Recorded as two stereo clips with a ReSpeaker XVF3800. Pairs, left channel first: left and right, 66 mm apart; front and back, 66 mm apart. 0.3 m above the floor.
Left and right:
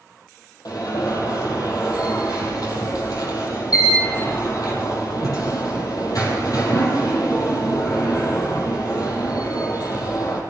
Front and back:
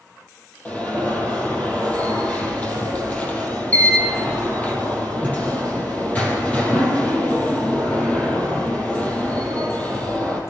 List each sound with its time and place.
0.7 s an alarm: 70° left, 6 m